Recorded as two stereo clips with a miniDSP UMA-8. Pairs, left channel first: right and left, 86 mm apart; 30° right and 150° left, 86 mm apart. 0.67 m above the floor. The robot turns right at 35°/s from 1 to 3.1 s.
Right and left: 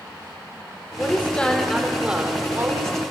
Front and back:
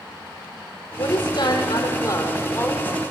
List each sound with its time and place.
1.0 s a woman speaking: 30° right, 2 m; by 3.0 s 40° left, 2 m